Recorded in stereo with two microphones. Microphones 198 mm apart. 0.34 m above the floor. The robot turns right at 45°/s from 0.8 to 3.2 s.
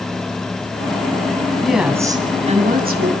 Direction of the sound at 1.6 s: Straight behind.